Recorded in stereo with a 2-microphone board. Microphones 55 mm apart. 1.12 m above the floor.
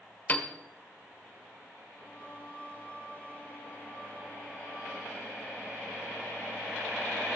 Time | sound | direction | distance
0.3 | a piano | 30° left (ahead or behind) | 1.3 m
1.9 | singing | 25° left (ahead or behind) | 5.5 m